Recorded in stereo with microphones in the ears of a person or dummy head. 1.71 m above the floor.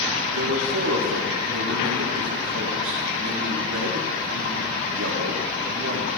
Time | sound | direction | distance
0.3 | a man speaking | 80° right | 3.5 m